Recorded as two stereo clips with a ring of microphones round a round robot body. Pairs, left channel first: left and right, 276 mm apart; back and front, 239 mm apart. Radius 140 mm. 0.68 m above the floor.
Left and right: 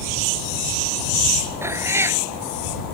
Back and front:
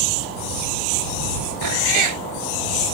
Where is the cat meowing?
10° right.